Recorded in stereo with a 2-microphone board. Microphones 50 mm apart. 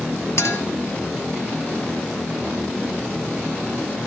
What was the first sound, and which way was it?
A clink, 70° left (ahead or behind).